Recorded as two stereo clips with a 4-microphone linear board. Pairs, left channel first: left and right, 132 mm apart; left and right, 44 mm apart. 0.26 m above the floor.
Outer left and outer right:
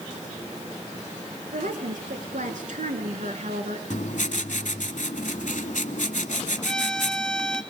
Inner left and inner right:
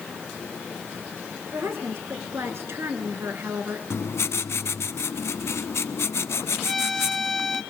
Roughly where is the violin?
Centre.